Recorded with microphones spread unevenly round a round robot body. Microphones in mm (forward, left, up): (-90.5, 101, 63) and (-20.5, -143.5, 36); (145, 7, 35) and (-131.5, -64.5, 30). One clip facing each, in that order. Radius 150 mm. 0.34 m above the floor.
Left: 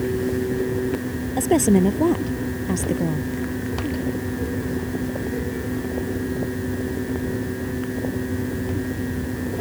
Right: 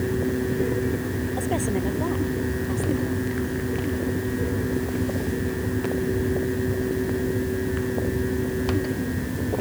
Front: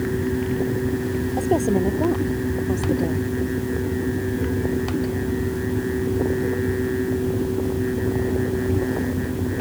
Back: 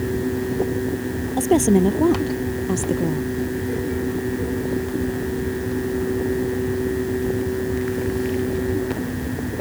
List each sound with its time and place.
1.4 s a woman speaking: 135° left; by 3.3 s 130° left